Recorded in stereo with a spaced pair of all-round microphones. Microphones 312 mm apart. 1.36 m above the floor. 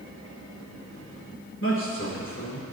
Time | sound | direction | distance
1.6 | a man speaking | 45° left (ahead or behind) | 5.5 m